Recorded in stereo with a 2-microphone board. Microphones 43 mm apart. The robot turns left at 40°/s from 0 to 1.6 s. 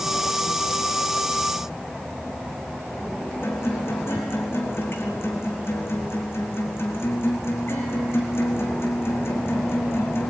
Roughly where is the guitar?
Left.